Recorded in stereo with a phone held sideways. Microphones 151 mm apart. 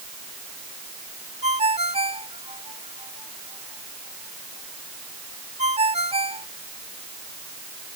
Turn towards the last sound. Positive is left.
turn(degrees=-45)  # may be behind; listen again after turning